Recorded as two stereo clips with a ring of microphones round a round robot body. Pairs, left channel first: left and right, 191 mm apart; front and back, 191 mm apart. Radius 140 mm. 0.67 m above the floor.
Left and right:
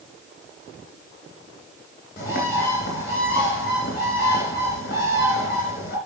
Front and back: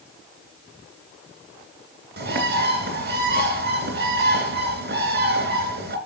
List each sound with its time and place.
2.2 s a bird: 150° left, 3 m